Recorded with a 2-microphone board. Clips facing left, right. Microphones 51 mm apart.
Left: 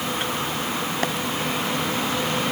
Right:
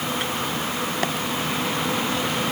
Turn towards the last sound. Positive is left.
No sound to turn to.